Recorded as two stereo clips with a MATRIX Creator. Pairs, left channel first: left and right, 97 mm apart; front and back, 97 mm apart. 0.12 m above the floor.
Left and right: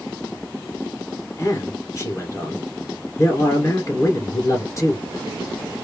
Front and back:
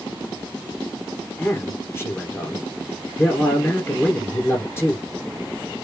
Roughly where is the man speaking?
Ahead left.